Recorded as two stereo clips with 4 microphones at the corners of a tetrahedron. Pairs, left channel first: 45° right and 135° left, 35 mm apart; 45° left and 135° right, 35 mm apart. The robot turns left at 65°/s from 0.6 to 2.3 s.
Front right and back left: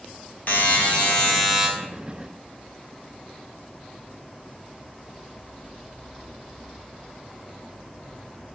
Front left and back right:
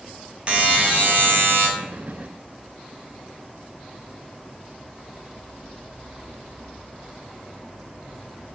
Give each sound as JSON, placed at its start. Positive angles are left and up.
{"t": 0.5, "sound": "a buzzer", "azimuth_deg": -75, "distance_m": 0.6}